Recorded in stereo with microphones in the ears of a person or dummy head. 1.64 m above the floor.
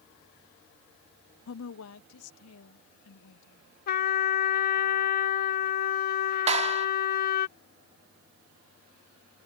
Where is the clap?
40° right (ahead or behind).